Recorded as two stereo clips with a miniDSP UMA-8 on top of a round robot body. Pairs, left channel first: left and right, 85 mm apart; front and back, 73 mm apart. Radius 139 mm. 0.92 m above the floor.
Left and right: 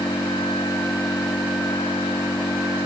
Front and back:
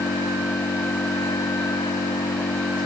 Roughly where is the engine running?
Ahead left.